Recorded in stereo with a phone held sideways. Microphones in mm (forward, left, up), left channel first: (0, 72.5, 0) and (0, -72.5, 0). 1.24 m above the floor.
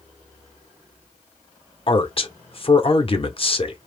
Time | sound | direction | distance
1.9 | a man speaking | 45° left (ahead or behind) | 1.0 m